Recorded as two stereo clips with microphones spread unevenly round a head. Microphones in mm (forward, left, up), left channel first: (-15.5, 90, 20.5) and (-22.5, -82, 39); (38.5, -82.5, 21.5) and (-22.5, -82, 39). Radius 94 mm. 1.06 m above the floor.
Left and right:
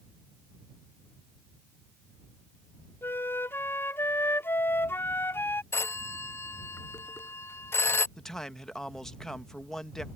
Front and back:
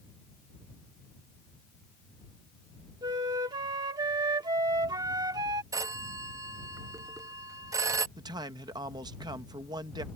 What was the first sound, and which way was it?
A flute, 165° left.